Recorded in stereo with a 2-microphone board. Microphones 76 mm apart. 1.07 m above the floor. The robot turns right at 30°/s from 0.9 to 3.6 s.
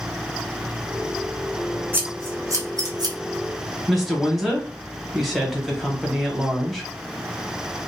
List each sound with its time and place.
1.9 s scissors: 25° right (ahead or behind), 0.7 m; by 3.1 s 55° right (ahead or behind), 0.7 m
3.9 s a woman speaking: centre (ahead or behind), 0.9 m